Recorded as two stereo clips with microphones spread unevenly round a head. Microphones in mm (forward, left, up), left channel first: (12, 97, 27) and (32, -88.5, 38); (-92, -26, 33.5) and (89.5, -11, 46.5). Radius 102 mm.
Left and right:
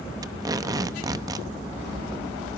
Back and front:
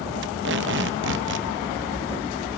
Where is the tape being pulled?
15° right, 0.8 m.